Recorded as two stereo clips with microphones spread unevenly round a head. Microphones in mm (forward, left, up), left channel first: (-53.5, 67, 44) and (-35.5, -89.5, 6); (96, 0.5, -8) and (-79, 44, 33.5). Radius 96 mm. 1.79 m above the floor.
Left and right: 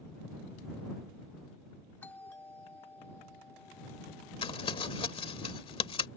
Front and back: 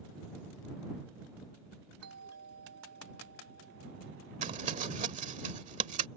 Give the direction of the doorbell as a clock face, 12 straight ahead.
6 o'clock.